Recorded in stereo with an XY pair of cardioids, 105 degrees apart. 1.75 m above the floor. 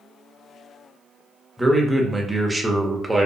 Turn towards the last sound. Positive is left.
turn(degrees=-10)